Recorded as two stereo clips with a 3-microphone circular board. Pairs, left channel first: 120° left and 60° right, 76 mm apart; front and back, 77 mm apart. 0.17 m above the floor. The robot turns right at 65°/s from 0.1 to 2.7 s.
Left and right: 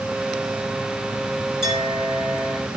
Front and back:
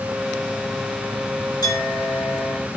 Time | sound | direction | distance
1.6 | a clink | 20° left | 8.5 m